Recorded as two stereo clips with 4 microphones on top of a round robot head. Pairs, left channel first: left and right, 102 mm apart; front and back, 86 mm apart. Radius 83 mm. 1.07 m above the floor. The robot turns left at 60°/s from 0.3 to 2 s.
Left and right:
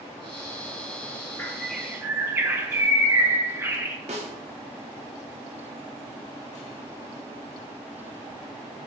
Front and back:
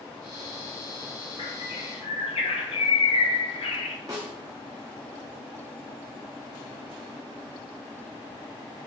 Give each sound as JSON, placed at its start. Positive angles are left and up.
{"t": 1.4, "sound": "a bird", "azimuth_deg": 20, "distance_m": 0.6}
{"t": 4.1, "sound": "a snare drum", "azimuth_deg": -115, "distance_m": 0.5}